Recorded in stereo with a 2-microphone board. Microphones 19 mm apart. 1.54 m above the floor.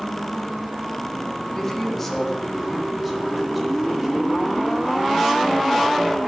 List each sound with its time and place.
1.5 s a man speaking: 15° left (ahead or behind), 3.5 m; by 6.2 s 25° right (ahead or behind), 6.5 m